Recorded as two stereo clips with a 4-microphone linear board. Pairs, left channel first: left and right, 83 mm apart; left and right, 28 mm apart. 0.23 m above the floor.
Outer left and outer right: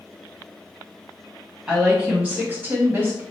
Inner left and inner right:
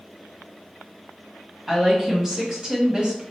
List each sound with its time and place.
1.7 s a woman speaking: 10° right (ahead or behind), 1.5 m; by 3.2 s 30° right (ahead or behind), 1.2 m